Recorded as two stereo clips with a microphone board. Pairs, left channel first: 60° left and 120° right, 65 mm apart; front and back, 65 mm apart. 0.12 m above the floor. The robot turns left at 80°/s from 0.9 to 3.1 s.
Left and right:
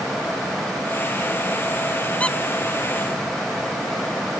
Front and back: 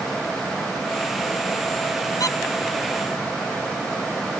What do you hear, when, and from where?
2.2 s a squeak: 5° right; by 2.4 s 20° right